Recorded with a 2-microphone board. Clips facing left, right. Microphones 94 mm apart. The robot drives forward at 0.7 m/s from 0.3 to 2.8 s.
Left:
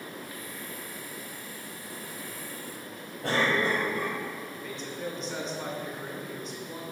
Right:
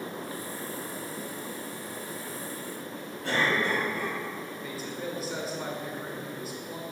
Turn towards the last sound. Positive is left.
turn(degrees=-5)  # may be behind; listen again after turning